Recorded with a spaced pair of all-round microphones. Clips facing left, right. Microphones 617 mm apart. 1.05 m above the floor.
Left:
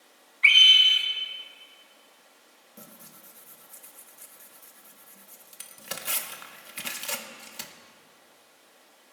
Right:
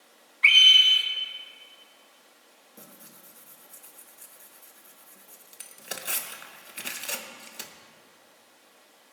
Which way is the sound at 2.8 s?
30° left (ahead or behind).